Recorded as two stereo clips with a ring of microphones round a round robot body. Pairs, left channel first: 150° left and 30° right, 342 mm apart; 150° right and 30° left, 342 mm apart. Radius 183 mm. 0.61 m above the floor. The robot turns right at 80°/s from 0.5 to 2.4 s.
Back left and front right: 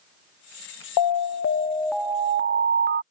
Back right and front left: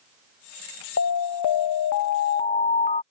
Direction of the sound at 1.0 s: 160° left.